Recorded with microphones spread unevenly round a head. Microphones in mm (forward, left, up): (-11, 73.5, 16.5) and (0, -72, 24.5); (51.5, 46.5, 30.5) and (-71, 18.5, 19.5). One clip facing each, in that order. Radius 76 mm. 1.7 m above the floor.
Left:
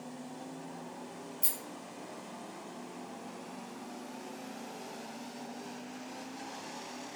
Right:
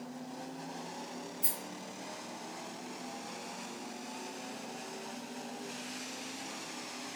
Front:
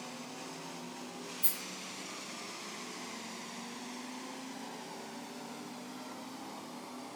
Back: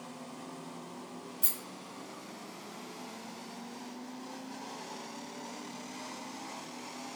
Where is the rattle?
170° left, 1.3 m.